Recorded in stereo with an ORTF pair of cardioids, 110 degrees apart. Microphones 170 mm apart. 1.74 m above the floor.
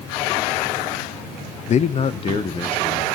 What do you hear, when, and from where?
1.7 s a man speaking: 45° left, 0.8 m; by 3.1 s 30° left, 2.5 m